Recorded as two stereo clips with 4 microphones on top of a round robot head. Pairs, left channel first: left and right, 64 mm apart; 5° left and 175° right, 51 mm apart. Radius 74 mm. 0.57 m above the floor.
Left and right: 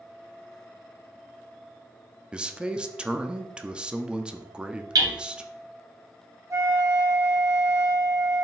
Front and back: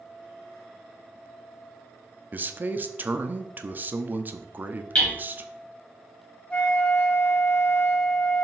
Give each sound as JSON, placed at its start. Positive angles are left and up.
{"t": 2.3, "sound": "a man speaking", "azimuth_deg": -155, "distance_m": 0.9}
{"t": 5.0, "sound": "hammering", "azimuth_deg": -65, "distance_m": 2.5}
{"t": 6.5, "sound": "a flute", "azimuth_deg": -60, "distance_m": 1.8}